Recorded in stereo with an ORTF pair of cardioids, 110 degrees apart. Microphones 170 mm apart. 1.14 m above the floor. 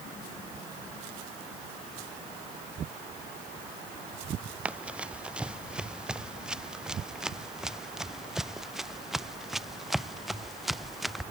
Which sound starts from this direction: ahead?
Running footsteps, at 4.7 s.